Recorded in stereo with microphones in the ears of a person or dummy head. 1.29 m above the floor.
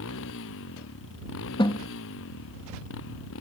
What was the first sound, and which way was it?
A motorcycle, 70° left (ahead or behind).